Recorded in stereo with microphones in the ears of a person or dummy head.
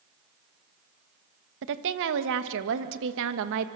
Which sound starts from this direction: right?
A woman speaking, at 1.6 s.